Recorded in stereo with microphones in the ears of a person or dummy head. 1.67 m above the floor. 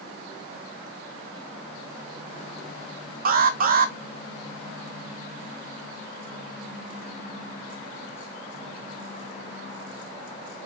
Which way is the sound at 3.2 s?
50° right (ahead or behind).